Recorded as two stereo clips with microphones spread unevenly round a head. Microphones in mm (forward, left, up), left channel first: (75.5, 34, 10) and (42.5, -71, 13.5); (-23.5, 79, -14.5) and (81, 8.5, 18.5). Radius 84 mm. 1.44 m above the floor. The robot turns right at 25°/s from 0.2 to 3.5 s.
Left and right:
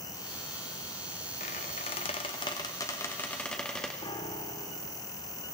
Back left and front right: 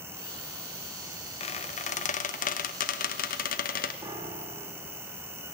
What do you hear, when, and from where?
1.4 s a squeak: 105° left, 0.8 m; by 3.9 s 160° left, 0.8 m
4.0 s a piano: 30° left, 1.5 m